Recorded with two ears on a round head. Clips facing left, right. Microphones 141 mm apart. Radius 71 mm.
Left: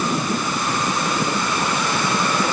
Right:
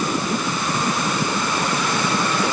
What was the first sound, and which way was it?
Only background noise.